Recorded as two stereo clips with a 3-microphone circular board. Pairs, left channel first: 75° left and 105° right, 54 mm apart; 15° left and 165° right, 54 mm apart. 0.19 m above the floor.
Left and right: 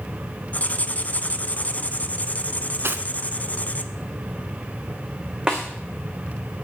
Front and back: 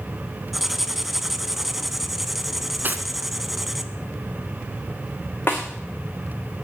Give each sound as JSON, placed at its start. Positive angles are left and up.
{"t": 0.5, "sound": "writing", "azimuth_deg": 110, "distance_m": 0.8}
{"t": 2.8, "sound": "cutlery clinking", "azimuth_deg": -125, "distance_m": 1.0}
{"t": 5.5, "sound": "a snare drum", "azimuth_deg": -30, "distance_m": 3.5}